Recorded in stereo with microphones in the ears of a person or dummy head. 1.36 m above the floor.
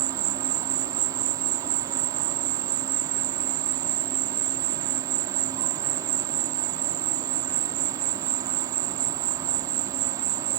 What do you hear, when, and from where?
0.0 s an insect: 25° right (ahead or behind), 0.9 m